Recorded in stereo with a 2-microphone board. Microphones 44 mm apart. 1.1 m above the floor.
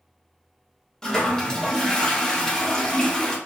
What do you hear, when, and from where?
1.0 s a toilet flushing: 15° left (ahead or behind), 0.6 m